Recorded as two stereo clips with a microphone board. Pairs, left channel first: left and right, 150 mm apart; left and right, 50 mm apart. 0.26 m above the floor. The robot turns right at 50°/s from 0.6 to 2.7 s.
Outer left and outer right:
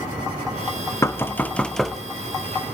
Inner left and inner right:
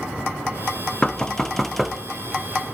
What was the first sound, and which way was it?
Knocking, 20° left (ahead or behind).